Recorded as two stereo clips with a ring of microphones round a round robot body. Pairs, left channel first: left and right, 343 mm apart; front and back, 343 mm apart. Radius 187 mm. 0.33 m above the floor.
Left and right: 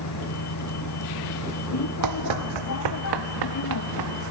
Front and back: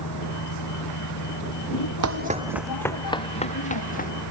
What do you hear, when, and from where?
0.0 s a vehicle: 50° left
2.0 s running footsteps: 135° right; by 4.1 s 65° right